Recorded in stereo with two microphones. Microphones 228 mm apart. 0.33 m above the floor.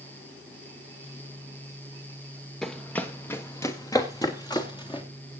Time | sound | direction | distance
2.6 | running footsteps | 5° left (ahead or behind) | 1.6 m